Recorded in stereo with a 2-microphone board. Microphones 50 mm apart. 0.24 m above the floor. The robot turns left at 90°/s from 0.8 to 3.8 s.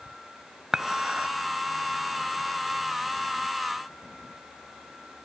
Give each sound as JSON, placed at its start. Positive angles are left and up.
{"t": 0.7, "sound": "dishes clattering", "side_deg": -15, "distance_m": 0.7}